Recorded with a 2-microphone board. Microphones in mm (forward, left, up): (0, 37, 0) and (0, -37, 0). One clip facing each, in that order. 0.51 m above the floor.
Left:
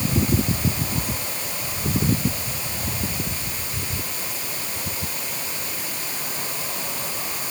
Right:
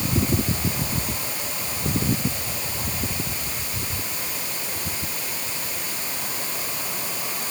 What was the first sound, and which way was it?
Only background noise.